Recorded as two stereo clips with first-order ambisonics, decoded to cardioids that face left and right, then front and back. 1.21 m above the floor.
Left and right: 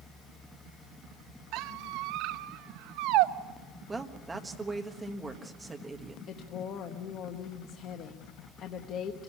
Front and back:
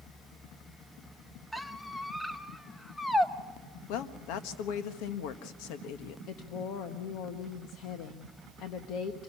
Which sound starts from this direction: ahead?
A woman speaking, at 3.9 s.